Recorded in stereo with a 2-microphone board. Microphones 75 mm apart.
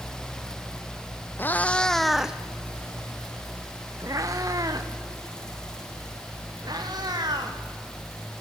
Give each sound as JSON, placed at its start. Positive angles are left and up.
{"t": 1.4, "sound": "a cat meowing", "side_deg": 30, "distance_m": 1.0}